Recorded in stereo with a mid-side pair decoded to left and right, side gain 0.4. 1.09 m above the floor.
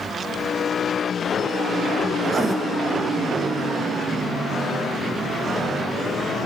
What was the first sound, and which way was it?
Writing, 35° right.